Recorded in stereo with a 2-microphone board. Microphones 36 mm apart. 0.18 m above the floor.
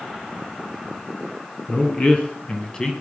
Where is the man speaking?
40° left (ahead or behind), 2 m; by 2.9 s 20° left (ahead or behind), 1.6 m.